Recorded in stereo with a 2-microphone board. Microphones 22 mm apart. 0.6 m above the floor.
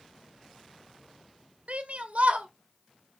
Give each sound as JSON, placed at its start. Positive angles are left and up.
{"t": 1.7, "sound": "a shout", "side_deg": -70, "distance_m": 1.9}